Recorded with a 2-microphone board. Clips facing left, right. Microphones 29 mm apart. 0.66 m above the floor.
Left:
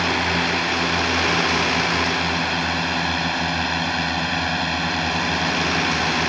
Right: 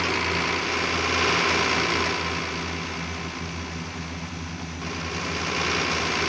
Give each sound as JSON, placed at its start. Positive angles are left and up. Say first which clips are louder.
{"t": 0.0, "sound": "a drone", "louder": "left 4 dB", "side_deg": 75}